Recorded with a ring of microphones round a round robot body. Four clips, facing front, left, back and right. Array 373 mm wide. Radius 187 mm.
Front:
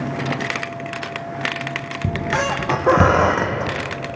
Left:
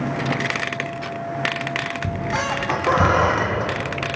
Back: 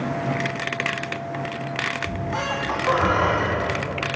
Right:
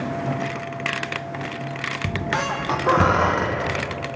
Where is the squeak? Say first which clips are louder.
Right 1 dB, front 9 dB; 10° right, 1.7 m.